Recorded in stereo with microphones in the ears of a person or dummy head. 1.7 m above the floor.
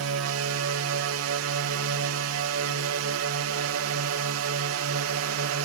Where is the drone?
75° right (ahead or behind).